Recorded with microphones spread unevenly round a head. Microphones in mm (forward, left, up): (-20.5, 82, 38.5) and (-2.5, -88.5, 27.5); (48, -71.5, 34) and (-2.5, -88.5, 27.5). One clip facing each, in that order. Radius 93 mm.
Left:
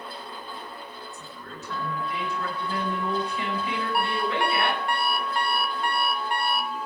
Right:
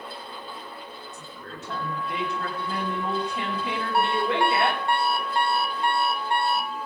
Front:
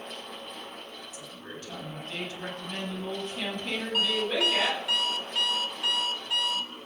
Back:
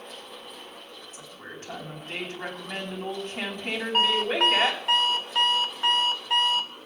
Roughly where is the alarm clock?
Behind right.